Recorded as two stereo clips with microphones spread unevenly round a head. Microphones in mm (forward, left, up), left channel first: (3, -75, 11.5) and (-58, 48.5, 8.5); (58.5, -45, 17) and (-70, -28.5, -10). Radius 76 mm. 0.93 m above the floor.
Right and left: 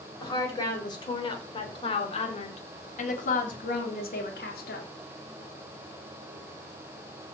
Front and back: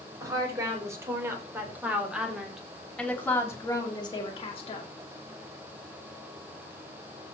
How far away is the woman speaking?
About 5 m.